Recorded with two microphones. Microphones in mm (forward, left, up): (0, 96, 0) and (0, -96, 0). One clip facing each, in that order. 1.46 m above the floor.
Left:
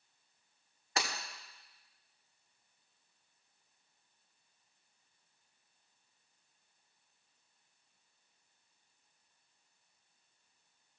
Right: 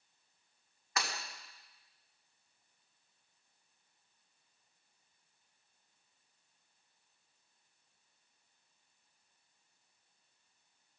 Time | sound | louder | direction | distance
1.0 | breaking glass | left 2 dB | 30° left (ahead or behind) | 2 m